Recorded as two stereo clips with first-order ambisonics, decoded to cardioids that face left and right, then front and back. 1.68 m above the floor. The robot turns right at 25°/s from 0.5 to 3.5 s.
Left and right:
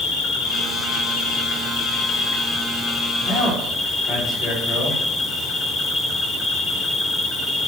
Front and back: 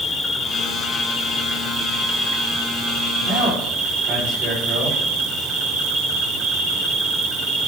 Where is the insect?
80° left, 1.2 m; by 7.7 s 155° left, 1.2 m.